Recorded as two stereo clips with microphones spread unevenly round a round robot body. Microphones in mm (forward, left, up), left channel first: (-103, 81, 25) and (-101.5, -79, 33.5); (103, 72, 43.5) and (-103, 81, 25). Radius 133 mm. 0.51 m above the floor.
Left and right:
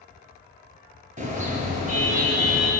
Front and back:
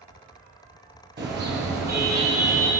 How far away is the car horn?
About 6 m.